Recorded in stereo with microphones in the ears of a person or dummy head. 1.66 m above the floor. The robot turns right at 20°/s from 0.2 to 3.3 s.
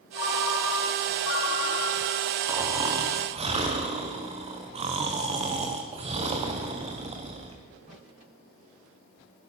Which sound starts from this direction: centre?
Snoring, at 2.5 s.